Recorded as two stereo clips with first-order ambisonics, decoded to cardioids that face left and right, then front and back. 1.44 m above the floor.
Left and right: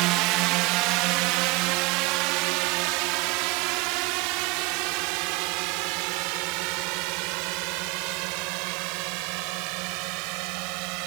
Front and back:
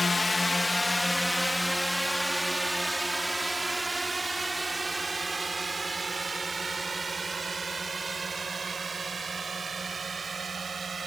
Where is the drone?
80° right; by 11.1 s 105° right.